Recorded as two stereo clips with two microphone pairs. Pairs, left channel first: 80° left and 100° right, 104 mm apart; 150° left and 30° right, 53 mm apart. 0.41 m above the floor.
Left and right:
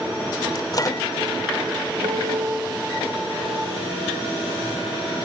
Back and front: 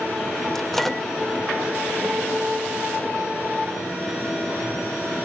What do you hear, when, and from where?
0.6 s a microwave: 70° left, 0.8 m
2.0 s a piano: 105° right, 2.5 m